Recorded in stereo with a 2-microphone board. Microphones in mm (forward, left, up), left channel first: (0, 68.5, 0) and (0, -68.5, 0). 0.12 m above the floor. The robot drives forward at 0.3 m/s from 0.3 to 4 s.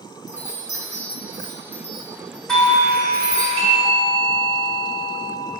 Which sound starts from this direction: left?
A chime, at 0.3 s.